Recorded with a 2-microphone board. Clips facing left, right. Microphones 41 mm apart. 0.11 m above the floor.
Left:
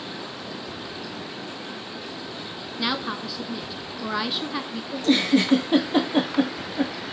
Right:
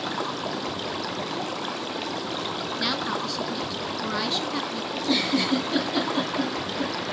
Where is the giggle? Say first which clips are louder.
Left 5 dB; 45° left (ahead or behind), 3.5 m.